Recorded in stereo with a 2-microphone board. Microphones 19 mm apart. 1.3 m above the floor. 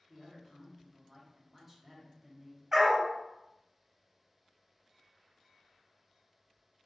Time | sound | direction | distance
0.1 | a woman speaking | 5° right (ahead or behind) | 0.7 m
2.7 | a dog barking | 20° right (ahead or behind) | 0.7 m